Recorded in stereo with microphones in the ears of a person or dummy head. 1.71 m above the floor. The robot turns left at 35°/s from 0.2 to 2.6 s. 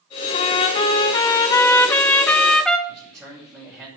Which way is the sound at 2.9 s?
10° right (ahead or behind).